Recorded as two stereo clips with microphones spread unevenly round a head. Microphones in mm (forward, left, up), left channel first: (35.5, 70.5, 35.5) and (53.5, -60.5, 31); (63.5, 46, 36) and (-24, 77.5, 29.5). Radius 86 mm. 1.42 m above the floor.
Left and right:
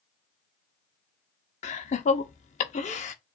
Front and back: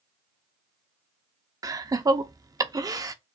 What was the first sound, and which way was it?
Laughter, 120° left.